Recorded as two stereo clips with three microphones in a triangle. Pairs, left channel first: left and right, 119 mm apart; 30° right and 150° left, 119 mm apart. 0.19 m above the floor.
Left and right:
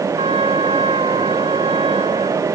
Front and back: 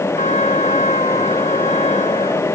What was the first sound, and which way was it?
A trumpet, 50° right.